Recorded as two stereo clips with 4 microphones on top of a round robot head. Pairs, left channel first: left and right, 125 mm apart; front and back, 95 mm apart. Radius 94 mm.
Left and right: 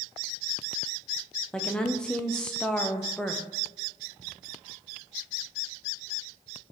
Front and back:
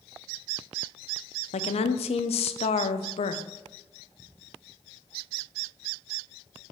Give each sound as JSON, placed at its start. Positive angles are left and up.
{"t": 1.5, "sound": "a woman speaking", "azimuth_deg": 5, "distance_m": 0.6}